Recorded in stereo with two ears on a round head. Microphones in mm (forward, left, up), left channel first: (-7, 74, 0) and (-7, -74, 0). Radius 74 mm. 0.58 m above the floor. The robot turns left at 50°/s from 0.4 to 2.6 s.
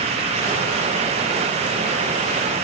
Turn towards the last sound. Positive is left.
No sound to turn to.